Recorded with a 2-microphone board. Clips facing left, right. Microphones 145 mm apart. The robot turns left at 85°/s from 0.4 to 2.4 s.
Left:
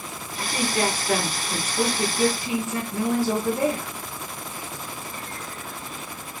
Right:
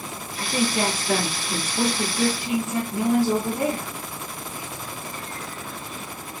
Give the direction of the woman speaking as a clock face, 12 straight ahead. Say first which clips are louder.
Right 1 dB; 11 o'clock.